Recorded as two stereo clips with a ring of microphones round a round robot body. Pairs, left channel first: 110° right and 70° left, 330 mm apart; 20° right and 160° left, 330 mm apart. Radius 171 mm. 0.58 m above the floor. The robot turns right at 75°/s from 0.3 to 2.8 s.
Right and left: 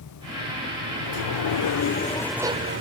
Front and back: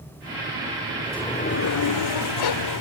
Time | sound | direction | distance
1.0 | a sliding door | 120° right | ?